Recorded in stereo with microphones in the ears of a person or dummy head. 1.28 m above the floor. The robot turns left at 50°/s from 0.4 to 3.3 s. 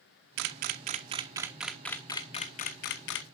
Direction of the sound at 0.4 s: 55° right (ahead or behind).